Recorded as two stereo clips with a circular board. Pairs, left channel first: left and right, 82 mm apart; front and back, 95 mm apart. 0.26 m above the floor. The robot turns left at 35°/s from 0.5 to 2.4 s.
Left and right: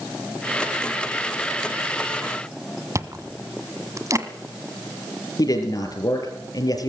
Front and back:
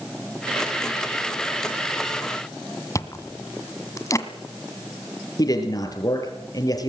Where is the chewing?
50° right, 1.7 m.